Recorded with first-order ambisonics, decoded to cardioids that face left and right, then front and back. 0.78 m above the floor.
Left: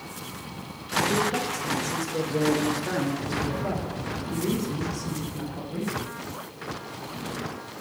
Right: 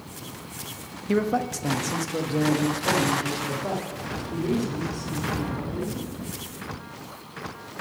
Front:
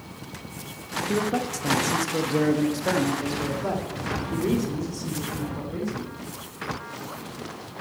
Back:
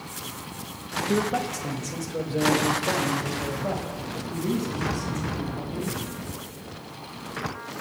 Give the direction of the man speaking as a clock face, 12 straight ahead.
3 o'clock.